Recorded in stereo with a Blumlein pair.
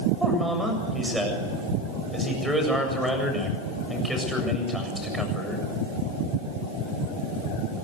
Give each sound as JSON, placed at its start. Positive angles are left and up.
{"t": 0.2, "sound": "a man speaking", "azimuth_deg": -5, "distance_m": 7.5}